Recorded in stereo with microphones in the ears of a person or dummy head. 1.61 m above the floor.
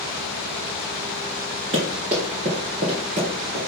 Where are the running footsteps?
25° right (ahead or behind), 1.7 m; by 3.7 s 30° right (ahead or behind), 3 m.